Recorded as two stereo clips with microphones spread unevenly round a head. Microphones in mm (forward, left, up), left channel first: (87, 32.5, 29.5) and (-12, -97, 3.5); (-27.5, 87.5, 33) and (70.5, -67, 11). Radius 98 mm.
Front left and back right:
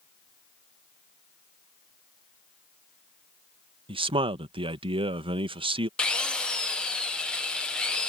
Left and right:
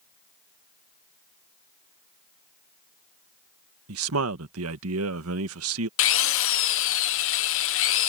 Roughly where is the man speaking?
Ahead right.